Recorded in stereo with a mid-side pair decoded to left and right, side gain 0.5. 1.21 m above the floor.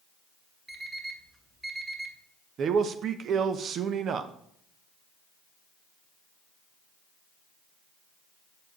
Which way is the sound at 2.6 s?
55° right.